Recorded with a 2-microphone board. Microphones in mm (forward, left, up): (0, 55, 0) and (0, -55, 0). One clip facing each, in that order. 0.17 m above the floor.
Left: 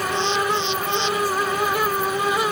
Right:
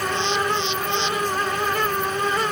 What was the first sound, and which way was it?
Only background noise.